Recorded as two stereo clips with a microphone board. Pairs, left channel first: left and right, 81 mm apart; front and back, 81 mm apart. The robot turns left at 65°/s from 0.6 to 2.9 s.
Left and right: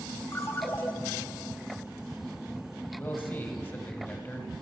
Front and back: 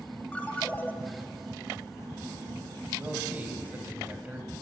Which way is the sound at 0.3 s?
60° left.